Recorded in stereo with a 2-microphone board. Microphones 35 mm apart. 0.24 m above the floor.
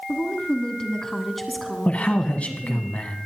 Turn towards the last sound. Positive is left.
turn(degrees=40)  # may be behind; listen again after turning